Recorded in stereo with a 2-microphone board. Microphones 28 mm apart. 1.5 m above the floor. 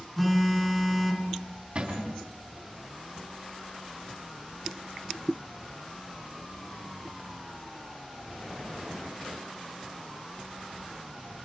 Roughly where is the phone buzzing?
Centre.